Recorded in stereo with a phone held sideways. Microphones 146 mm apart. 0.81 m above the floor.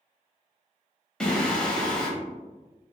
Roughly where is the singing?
Centre.